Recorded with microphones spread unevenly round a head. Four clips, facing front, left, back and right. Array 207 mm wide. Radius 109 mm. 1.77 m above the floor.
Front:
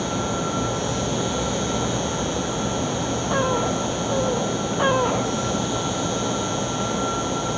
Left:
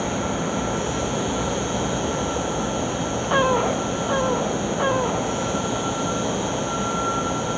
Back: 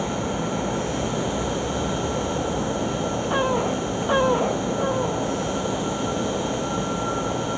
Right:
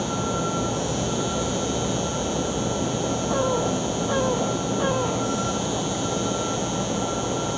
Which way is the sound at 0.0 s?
85° right.